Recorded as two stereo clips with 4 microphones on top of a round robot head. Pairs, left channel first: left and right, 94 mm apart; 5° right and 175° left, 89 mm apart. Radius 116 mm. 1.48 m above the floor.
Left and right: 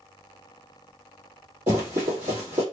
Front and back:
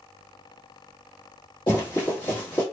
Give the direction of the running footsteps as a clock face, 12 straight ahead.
2 o'clock.